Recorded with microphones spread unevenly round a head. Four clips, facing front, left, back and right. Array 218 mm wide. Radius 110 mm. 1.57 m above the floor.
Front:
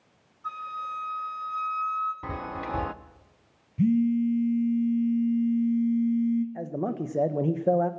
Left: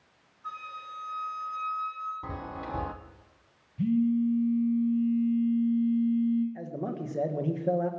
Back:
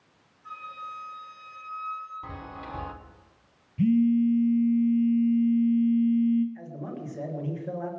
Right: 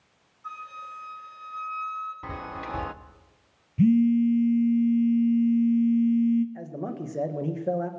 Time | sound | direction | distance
0.4 | a flute | 15° left | 9.5 m
2.2 | a chime | straight ahead | 0.6 m
3.8 | a phone buzzing | 75° right | 1.0 m
6.5 | a man speaking | straight ahead | 1.4 m